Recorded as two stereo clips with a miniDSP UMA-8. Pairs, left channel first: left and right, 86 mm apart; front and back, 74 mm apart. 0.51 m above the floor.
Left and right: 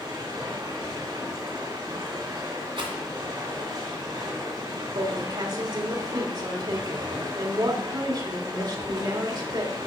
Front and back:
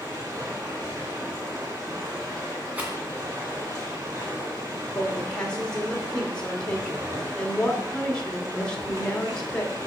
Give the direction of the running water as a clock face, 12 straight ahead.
4 o'clock.